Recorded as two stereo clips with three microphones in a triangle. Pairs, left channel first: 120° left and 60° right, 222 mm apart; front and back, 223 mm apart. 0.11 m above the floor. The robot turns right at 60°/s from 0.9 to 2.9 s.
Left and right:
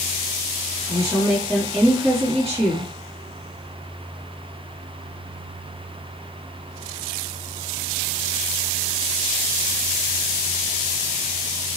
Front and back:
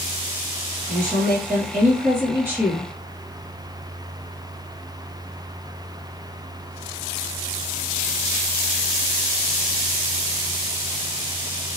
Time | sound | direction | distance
0.9 | a woman speaking | 160° left | 2.0 m